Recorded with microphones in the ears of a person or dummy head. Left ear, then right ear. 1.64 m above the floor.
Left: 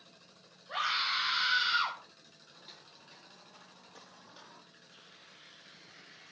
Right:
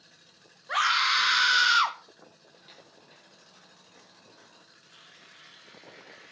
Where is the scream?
55° right (ahead or behind), 2.5 m; by 2.0 s 70° right (ahead or behind), 1.7 m.